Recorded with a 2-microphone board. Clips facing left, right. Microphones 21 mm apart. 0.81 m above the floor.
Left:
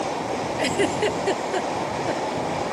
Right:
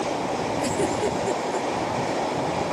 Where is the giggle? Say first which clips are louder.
Left 4 dB; 65° left (ahead or behind).